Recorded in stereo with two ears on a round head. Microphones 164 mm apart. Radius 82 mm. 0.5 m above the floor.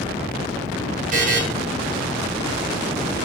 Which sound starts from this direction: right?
A buzzer, at 1.1 s.